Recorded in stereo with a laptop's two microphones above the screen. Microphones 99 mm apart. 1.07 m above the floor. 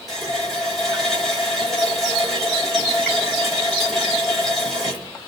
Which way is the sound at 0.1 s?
5° left (ahead or behind).